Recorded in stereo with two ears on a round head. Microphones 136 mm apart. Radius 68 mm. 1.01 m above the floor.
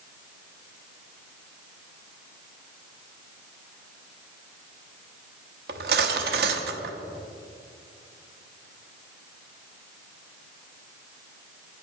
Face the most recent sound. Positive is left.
turn(degrees=-70)  # may be behind; listen again after turning